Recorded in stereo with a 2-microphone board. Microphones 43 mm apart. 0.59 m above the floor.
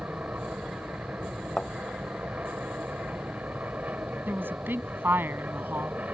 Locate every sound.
0.0 s an aircraft: 40° right (ahead or behind)
1.6 s a thud: 20° left (ahead or behind)
4.3 s a woman speaking: 55° right (ahead or behind)